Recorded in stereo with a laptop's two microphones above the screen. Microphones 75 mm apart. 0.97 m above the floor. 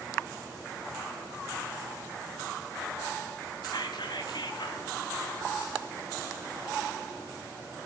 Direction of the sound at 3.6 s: 70° left (ahead or behind).